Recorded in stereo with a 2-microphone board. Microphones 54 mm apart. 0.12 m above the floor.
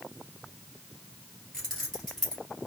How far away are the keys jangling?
About 1.9 m.